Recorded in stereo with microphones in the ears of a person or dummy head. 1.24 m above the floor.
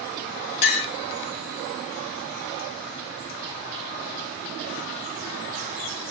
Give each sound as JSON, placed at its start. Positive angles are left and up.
{"t": 0.6, "sound": "a clink", "side_deg": 55, "distance_m": 0.9}